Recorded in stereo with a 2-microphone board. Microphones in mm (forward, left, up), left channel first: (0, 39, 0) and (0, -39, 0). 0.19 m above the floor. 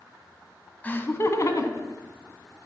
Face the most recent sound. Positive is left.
turn(degrees=60)  # may be behind; listen again after turning